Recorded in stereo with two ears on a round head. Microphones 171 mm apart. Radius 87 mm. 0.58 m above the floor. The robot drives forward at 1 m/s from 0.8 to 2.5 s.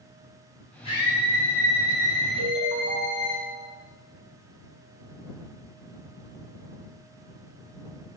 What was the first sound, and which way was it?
A scream, 30° left (ahead or behind).